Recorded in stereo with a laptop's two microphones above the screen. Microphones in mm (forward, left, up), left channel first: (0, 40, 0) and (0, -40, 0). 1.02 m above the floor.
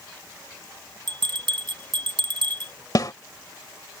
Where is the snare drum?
50° left (ahead or behind).